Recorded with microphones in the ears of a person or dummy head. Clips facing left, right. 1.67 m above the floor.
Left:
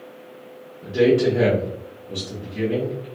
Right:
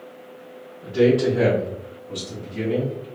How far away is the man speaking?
About 1.2 m.